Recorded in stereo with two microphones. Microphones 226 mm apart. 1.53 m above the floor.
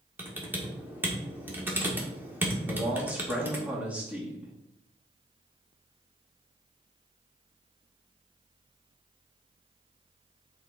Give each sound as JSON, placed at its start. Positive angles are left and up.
{"t": 0.2, "sound": "typing on a keyboard", "side_deg": -10, "distance_m": 1.5}
{"t": 2.7, "sound": "a man speaking", "side_deg": -5, "distance_m": 2.5}